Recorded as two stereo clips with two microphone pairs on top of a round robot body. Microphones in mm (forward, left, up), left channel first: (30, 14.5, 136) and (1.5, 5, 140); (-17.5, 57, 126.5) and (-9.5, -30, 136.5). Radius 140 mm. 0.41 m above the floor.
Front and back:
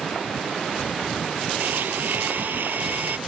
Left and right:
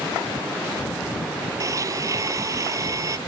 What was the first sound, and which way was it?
A blender, 140° right.